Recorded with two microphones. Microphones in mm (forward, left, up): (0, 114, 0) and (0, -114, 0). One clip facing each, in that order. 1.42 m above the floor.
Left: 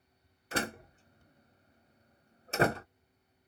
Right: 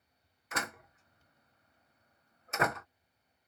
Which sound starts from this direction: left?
A door slam, at 0.5 s.